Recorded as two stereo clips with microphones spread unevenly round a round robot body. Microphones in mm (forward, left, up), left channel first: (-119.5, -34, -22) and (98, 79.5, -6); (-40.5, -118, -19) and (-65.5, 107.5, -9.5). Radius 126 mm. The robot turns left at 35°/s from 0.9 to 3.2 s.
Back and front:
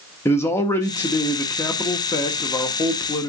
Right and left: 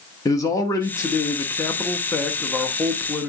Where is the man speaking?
105° right, 0.9 m; by 3.3 s 170° left, 0.9 m.